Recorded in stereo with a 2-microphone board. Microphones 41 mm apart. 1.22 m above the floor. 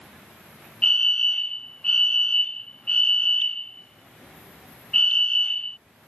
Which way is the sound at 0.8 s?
25° left (ahead or behind).